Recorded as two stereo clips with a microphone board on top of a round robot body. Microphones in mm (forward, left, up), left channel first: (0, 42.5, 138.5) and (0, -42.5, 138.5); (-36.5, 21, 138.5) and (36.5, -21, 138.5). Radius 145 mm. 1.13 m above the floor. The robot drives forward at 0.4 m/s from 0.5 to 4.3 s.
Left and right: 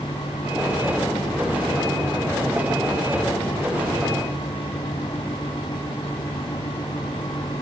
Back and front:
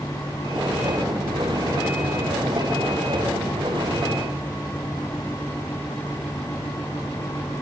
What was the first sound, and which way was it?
Only background noise.